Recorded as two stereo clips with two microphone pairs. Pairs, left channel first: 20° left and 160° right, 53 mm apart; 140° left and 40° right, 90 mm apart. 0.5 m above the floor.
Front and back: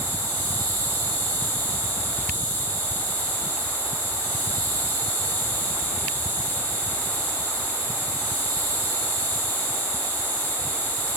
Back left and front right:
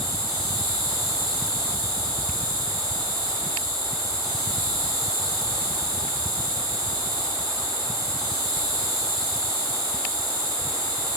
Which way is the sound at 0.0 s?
15° right.